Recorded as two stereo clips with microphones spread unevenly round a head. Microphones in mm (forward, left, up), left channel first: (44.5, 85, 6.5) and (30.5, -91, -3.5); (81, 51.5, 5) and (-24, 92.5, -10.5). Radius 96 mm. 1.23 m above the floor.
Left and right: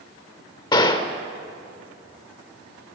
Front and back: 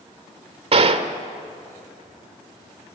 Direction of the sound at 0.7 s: 145° left.